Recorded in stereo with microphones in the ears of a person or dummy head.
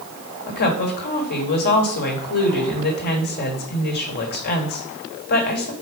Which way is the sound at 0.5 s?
50° left (ahead or behind).